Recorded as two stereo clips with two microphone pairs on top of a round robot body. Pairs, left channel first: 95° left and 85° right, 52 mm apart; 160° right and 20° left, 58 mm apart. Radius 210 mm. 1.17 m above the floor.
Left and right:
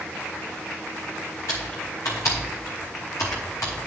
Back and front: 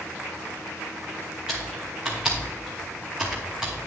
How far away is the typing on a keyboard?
About 0.8 m.